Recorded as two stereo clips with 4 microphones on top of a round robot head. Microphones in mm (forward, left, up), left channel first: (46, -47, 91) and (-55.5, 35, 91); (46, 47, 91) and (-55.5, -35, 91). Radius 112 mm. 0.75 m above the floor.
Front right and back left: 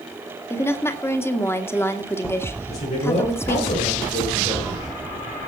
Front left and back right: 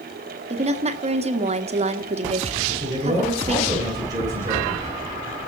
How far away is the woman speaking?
About 1.9 m.